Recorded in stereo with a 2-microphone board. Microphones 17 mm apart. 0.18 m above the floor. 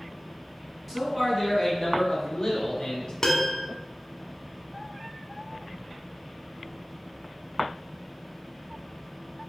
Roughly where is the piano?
Left.